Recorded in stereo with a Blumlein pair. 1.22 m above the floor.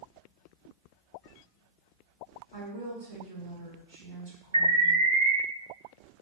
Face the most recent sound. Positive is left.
turn(degrees=-70)